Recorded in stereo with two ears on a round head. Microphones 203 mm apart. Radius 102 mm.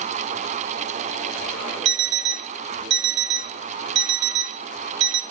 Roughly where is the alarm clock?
Right.